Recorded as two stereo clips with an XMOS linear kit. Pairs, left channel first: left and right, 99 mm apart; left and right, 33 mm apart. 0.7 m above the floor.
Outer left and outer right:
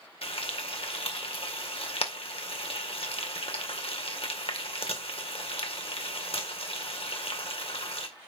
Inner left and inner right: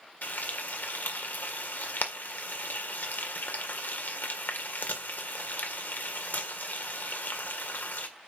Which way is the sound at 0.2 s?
75° left (ahead or behind).